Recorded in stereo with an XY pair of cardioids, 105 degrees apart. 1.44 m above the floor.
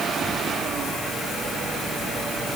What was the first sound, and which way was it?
Only background noise.